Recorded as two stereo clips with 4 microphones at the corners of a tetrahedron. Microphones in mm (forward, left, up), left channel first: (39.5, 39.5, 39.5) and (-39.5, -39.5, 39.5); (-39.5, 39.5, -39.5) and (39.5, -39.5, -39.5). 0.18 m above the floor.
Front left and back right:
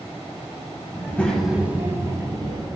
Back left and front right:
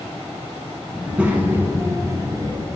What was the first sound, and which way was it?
A child speaking, 35° left.